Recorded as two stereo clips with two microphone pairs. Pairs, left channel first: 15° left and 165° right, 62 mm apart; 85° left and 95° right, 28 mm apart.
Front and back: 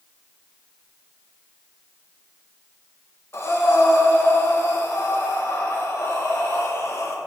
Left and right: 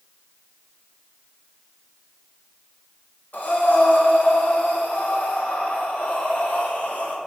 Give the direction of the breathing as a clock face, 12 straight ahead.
10 o'clock.